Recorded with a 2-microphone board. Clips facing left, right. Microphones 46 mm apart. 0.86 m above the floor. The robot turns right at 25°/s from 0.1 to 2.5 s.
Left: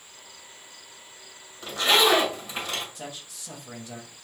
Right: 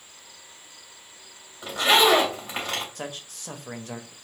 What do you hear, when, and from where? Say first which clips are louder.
1.6 s a zipper: right 2 dB; 15° right (ahead or behind), 3 m; by 2.9 s 35° right (ahead or behind), 3 m
3.0 s a man speaking: right 3 dB; 55° right (ahead or behind), 1.0 m